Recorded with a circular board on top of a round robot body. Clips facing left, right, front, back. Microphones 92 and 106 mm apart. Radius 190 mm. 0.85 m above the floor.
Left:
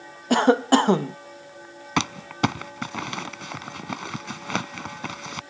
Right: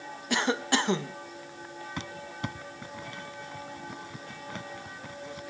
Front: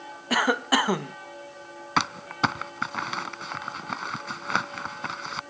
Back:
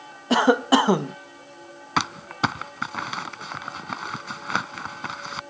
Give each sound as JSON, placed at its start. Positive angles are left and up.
{"t": 0.3, "sound": "a cough", "azimuth_deg": 120}
{"t": 2.0, "sound": "crumpling", "azimuth_deg": 90}